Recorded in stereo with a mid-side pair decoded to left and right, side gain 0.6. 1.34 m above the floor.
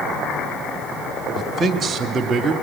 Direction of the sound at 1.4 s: 35° right.